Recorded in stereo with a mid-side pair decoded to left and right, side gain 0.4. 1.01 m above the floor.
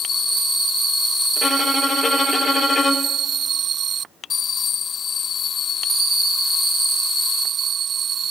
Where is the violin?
40° left, 0.8 m.